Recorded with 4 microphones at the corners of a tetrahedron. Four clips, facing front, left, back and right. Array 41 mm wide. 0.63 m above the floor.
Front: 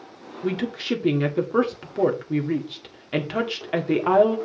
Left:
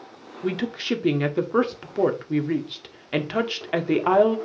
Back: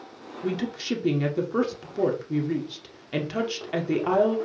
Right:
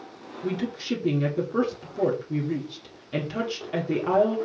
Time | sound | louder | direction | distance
0.4 | a woman speaking | left 3 dB, front 3 dB | 65° left | 1.5 m